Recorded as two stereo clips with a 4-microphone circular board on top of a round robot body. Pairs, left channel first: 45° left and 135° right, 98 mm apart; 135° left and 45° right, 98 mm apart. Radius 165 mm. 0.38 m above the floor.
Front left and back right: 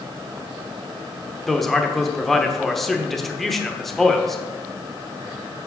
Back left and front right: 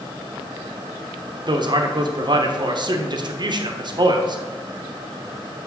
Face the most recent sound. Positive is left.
turn(degrees=-45)